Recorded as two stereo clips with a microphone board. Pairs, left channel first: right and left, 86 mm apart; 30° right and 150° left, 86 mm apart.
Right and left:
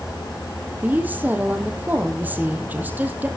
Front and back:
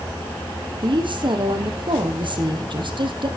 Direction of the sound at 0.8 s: 155° left.